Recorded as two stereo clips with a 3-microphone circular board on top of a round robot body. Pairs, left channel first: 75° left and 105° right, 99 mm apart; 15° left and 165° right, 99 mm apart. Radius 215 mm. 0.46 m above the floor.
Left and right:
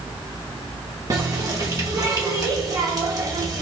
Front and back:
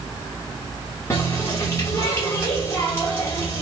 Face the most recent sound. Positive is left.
turn(degrees=-50)